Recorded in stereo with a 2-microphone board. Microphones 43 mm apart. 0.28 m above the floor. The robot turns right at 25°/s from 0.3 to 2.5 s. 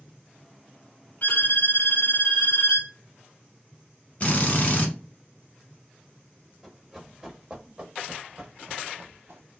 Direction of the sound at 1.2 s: 50° left.